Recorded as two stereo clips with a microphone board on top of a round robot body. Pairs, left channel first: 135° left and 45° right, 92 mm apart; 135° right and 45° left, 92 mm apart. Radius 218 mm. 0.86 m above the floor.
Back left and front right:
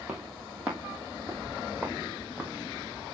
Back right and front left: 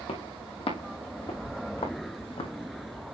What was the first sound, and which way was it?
Footsteps, 125° right.